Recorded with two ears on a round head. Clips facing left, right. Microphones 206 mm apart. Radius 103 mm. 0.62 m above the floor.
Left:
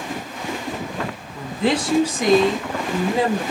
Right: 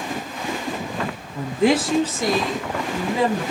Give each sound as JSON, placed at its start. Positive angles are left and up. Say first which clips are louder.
{"t": 1.4, "sound": "a woman speaking", "louder": "right 3 dB", "side_deg": -25, "distance_m": 0.8}